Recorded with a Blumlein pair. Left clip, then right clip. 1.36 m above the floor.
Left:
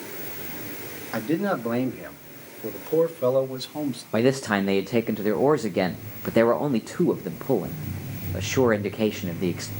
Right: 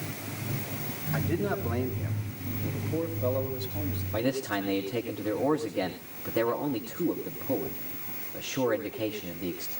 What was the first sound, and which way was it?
A man speaking, 65° left.